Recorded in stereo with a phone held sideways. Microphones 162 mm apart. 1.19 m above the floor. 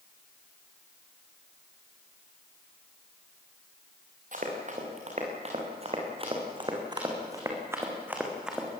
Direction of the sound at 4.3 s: 50° right (ahead or behind).